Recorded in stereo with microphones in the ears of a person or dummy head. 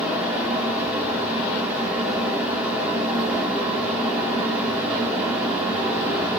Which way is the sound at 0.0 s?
5° right (ahead or behind).